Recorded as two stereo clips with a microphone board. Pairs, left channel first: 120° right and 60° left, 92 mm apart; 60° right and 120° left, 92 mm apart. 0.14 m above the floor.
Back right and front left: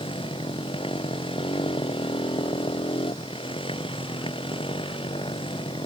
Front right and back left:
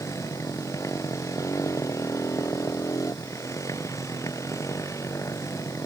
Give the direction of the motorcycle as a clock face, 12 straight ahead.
4 o'clock.